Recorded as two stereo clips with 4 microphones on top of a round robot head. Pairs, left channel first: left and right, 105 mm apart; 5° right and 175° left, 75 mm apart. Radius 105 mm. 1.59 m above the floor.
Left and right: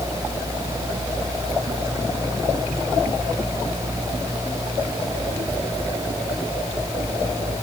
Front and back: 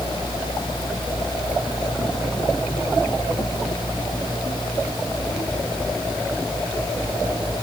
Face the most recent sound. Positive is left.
No sound to turn to.